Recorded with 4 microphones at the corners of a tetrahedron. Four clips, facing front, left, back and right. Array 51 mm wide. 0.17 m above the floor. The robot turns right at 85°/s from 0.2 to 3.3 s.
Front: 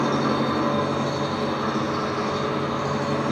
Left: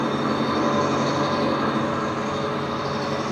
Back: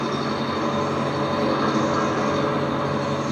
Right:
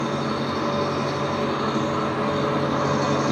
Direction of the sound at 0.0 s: 25° left.